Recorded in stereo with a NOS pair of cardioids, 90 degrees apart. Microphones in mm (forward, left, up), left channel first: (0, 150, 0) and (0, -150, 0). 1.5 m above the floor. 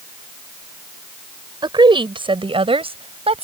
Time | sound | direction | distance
1.6 | a woman speaking | 15° right | ?